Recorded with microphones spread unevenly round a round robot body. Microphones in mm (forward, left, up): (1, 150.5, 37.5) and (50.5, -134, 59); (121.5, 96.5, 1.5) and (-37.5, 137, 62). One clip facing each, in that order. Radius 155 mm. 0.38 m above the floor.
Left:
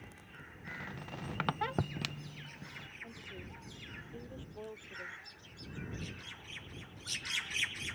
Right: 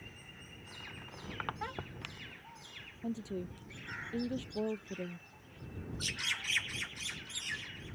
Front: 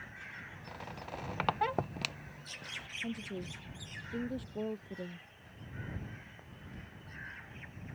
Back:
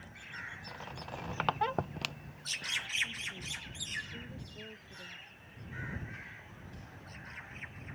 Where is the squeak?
70° left.